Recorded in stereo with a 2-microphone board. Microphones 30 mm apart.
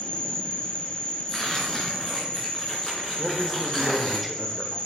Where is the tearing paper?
20° left (ahead or behind), 3 m.